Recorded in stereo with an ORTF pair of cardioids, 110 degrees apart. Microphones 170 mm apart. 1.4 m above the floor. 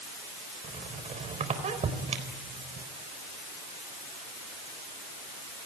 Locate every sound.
0.6 s a squeak: 40° right, 4 m